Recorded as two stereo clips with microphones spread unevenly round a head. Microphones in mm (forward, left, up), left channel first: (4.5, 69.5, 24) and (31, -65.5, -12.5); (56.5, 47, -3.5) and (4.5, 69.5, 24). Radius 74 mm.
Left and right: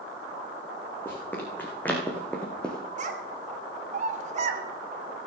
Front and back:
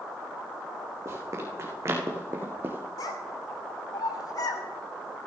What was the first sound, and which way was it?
Running footsteps, 170° left.